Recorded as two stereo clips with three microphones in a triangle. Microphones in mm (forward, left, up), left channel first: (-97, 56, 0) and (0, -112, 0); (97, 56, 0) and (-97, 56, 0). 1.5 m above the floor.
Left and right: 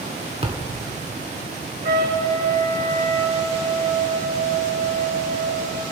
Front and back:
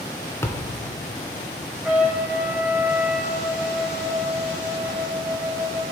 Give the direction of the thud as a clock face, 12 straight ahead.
2 o'clock.